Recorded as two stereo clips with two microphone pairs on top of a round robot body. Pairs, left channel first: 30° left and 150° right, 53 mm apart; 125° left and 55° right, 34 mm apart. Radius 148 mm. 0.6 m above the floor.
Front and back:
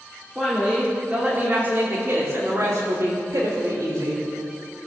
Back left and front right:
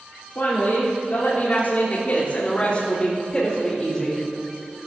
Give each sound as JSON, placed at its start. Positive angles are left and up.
{"t": 0.3, "sound": "a woman speaking", "azimuth_deg": 125, "distance_m": 3.0}